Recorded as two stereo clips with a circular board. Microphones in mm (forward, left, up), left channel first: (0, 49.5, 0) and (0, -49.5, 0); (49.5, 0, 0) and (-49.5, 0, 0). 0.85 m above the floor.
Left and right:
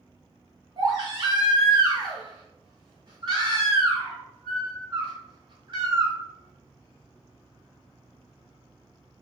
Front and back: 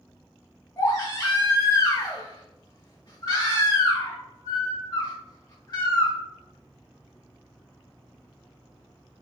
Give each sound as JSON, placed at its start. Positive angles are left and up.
{"t": 0.8, "sound": "a baby crying", "azimuth_deg": -50, "distance_m": 1.3}